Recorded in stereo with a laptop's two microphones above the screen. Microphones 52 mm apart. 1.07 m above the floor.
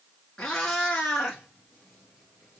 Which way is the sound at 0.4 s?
15° left (ahead or behind).